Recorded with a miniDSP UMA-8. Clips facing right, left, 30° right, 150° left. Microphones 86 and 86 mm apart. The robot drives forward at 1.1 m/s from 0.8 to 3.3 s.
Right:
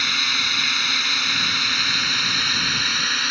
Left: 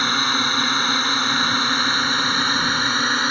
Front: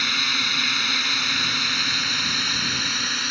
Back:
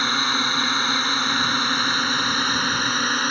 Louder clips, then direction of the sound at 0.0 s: Left 6 dB, back 5 dB; 115° left.